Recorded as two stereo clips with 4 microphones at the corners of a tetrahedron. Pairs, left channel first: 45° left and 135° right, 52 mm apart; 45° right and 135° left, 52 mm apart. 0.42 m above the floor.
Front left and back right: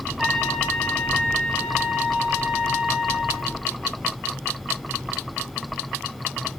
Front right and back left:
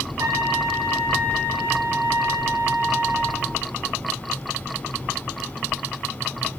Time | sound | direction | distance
0.2 | a trumpet | 140° left | 5.5 m